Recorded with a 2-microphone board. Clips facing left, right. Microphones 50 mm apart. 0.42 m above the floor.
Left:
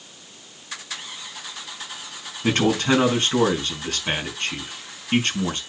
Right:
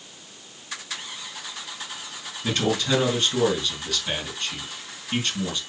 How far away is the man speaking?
About 5 m.